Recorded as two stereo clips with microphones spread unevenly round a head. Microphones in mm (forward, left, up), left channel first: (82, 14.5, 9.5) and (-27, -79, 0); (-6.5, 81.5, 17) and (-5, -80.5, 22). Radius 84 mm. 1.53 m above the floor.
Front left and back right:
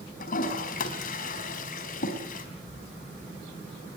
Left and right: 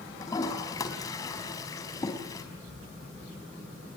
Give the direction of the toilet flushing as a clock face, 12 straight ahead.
11 o'clock.